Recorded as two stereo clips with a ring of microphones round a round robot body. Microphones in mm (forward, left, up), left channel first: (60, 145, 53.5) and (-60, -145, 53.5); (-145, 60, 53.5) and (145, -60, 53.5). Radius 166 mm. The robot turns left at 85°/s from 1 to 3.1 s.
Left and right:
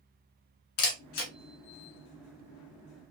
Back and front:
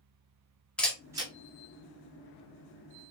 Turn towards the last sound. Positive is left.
turn(degrees=-110)